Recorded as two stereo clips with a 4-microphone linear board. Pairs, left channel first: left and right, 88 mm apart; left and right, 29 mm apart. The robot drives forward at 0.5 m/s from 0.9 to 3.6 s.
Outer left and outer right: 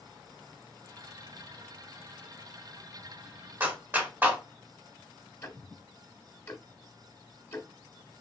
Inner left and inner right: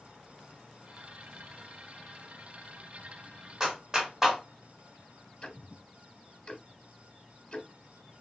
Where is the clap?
20° right (ahead or behind), 1.0 m.